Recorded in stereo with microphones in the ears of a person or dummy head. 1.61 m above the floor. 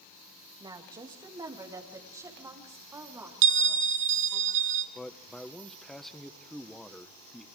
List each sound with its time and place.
0.6 s a woman speaking: 25° right (ahead or behind), 2.5 m; by 4.4 s 10° right (ahead or behind), 4.5 m
3.4 s a bell: 65° right (ahead or behind), 0.7 m
5.0 s a man speaking: centre (ahead or behind), 0.8 m